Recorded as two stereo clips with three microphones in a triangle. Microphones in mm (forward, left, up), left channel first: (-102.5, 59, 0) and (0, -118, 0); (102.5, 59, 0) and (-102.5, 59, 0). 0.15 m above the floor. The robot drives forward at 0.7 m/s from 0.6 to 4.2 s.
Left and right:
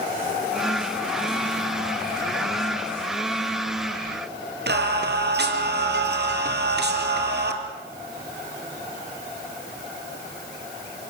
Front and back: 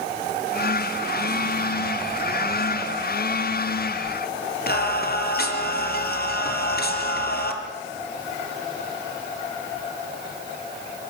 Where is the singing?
35° right, 3 m.